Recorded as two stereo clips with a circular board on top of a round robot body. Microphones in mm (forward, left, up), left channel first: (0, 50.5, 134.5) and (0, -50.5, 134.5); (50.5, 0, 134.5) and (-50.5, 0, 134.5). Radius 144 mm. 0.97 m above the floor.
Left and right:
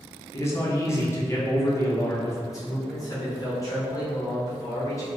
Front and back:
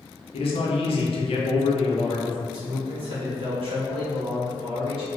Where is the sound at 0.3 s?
30° left, 0.7 m.